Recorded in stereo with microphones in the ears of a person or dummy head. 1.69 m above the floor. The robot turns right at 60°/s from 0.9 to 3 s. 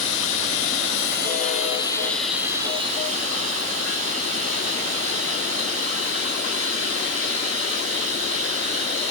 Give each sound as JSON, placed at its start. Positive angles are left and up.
{"t": 0.0, "sound": "running water", "azimuth_deg": 100, "distance_m": 3.0}